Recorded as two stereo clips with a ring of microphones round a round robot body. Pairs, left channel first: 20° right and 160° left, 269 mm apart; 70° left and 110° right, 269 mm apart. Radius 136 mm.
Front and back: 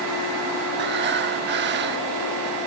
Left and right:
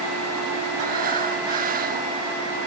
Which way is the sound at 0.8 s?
165° right.